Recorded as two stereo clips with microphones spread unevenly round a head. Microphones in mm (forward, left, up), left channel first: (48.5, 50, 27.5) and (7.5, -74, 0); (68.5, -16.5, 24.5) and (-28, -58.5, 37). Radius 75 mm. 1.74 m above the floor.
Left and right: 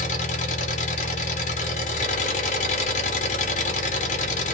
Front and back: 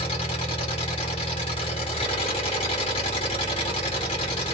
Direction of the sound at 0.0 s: 80° left.